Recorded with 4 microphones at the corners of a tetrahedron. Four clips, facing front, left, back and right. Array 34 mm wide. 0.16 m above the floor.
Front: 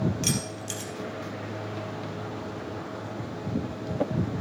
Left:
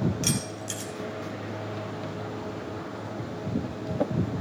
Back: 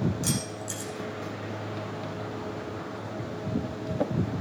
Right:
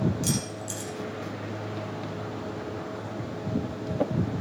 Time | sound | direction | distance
0.2 | keys jangling | 45° left | 2.5 m